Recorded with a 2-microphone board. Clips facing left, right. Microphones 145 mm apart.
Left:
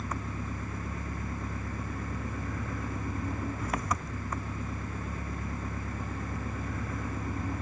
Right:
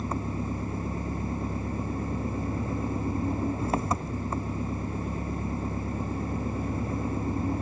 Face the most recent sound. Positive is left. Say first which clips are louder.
# right 6 dB
turn(degrees=-30)  # may be behind; listen again after turning